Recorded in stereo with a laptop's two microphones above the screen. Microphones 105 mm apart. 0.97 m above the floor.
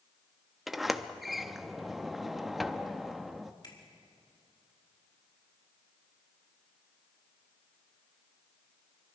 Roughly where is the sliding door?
Centre.